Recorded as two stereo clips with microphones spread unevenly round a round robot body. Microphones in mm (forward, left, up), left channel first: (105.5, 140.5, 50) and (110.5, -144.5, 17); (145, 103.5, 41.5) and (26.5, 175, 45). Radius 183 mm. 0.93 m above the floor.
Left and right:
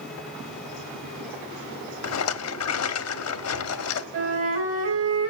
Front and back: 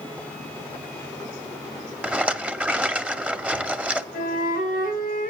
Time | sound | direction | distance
2.0 | a rattle | 70° left | 0.8 m
4.1 | a flute | 50° right | 3 m